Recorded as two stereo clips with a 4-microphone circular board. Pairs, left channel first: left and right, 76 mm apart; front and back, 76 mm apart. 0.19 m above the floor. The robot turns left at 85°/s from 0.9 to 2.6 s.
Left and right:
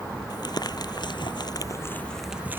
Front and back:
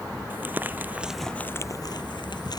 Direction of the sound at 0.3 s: 115° left.